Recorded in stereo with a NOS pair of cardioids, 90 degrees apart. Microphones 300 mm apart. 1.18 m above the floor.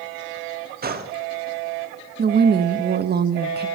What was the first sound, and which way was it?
A gunshot, 30° right.